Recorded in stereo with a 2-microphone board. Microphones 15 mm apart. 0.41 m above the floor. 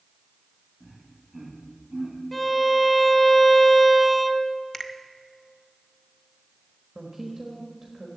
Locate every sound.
0.8 s laughter: 5° left (ahead or behind), 2.5 m; by 2.2 s 15° right (ahead or behind), 3 m
2.3 s a violin: 10° left (ahead or behind), 0.8 m
4.7 s a finger snap: 25° left (ahead or behind), 0.7 m
7.0 s a woman speaking: 20° right (ahead or behind), 1.4 m